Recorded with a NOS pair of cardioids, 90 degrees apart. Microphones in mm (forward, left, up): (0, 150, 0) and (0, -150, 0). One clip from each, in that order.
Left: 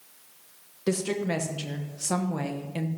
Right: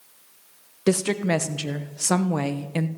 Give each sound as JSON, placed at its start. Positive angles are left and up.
{"t": 0.9, "sound": "a woman speaking", "azimuth_deg": -40, "distance_m": 1.1}